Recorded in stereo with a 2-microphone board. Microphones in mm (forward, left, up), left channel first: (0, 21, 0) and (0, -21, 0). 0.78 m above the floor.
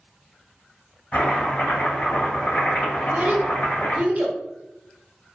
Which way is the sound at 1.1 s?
55° left (ahead or behind).